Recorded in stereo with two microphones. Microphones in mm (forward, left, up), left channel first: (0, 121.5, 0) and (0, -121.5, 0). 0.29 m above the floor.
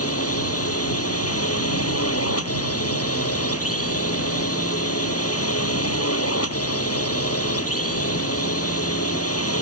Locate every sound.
0.0 s a drone: 70° left (ahead or behind)